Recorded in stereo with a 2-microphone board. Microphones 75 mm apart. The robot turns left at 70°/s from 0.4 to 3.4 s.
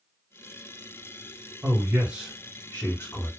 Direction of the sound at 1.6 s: 125° right.